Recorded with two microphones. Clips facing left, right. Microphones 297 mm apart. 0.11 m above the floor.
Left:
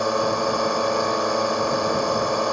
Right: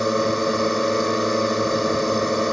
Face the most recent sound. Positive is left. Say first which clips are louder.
# right 2 dB
turn(degrees=-25)  # may be behind; listen again after turning